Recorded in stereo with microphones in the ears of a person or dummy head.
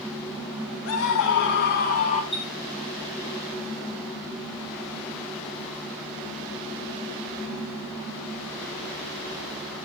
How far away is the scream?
About 3 m.